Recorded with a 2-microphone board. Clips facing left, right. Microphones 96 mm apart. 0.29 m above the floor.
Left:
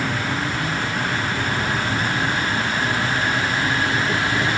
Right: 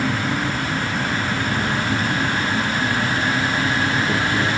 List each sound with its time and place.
0.0 s an insect: 70° right (ahead or behind), 3 m